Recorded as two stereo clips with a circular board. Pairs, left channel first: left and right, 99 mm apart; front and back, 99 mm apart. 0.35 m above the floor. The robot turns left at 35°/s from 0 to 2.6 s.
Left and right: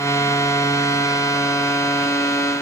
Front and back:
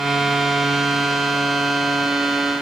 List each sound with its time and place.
Only background noise.